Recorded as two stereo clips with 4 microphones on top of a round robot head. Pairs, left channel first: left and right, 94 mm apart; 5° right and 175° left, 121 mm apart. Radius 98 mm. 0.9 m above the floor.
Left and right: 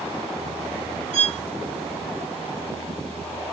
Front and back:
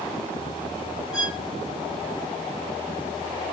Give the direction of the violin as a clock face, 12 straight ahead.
3 o'clock.